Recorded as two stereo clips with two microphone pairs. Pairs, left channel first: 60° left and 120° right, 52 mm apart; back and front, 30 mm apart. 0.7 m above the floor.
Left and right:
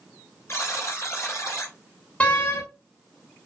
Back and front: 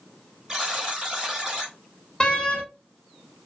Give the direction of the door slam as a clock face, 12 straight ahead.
8 o'clock.